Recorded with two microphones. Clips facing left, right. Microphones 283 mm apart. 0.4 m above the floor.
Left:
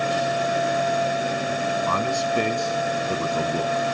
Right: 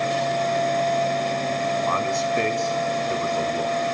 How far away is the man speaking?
About 3 m.